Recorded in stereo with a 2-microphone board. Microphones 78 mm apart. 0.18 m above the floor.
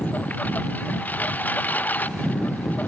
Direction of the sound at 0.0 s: 20° left (ahead or behind).